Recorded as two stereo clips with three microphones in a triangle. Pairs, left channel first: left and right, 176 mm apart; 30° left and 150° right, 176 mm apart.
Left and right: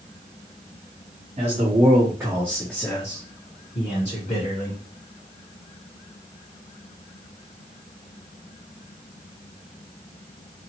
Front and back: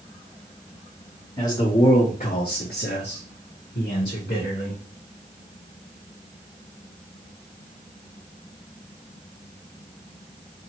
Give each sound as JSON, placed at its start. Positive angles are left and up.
{"t": 1.4, "sound": "a man speaking", "azimuth_deg": -45, "distance_m": 1.0}